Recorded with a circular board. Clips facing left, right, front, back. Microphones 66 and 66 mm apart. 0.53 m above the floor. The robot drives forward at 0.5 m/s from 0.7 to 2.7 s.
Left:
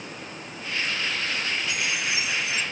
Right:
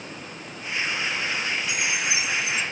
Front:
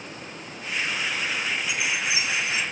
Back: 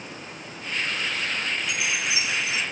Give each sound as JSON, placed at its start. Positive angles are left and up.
{"t": 1.7, "sound": "a chime", "azimuth_deg": -100, "distance_m": 1.5}